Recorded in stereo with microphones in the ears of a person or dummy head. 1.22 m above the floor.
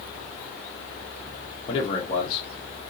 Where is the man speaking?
40° left (ahead or behind), 1.0 m.